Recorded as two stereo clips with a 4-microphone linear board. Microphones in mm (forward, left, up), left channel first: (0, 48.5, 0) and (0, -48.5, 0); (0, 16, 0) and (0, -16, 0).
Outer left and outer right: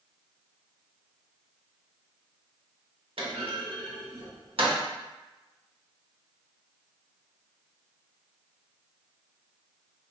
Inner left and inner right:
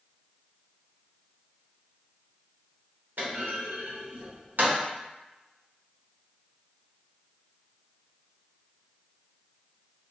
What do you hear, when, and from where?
3.2 s a clunk: 70° right (ahead or behind), 0.8 m